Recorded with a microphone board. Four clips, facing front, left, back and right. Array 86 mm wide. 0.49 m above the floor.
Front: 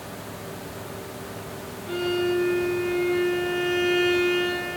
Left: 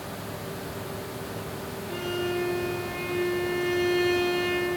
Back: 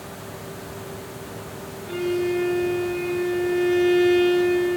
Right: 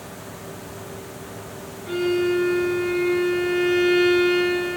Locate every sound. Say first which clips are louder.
1.9 s a violin: right 10 dB, back 1 dB; 75° right, 7 m